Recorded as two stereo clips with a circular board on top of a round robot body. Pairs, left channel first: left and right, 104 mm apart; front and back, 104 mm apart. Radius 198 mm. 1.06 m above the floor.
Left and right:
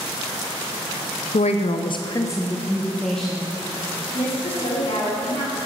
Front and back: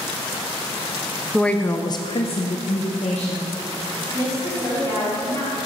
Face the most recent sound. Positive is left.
turn(degrees=60)